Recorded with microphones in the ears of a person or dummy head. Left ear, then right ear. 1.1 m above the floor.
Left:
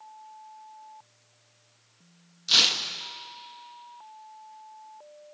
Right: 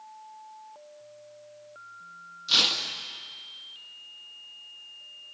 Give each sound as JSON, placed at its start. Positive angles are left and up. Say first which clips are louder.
{"t": 2.5, "sound": "tearing paper", "louder": "left 2 dB", "side_deg": 5, "distance_m": 1.7}